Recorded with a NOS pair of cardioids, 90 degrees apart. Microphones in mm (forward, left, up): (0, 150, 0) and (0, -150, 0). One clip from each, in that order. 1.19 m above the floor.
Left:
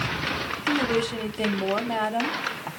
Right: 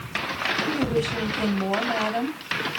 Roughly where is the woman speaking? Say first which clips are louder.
Left 1 dB; ahead.